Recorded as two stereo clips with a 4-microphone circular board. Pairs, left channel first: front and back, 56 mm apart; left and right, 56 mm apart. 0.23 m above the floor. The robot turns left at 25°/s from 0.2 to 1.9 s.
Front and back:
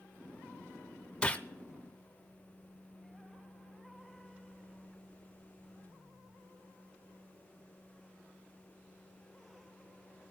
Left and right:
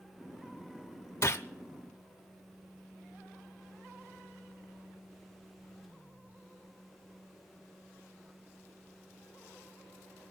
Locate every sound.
1.2 s a gunshot: 70° left, 0.7 m; by 1.4 s 60° left, 0.7 m